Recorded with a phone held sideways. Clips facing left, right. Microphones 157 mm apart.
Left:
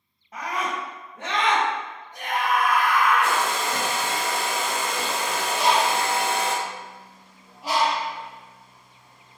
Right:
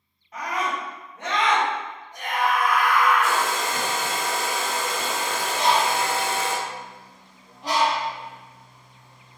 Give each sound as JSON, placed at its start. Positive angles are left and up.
{"t": 0.3, "sound": "a scream", "side_deg": 30, "distance_m": 1.6}
{"t": 3.2, "sound": "a hair dryer", "side_deg": 65, "distance_m": 0.8}
{"t": 5.5, "sound": "a bird", "side_deg": 10, "distance_m": 1.2}